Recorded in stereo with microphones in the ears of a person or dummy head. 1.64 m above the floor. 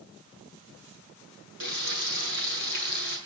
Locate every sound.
1.6 s frying: 60° right (ahead or behind), 7 m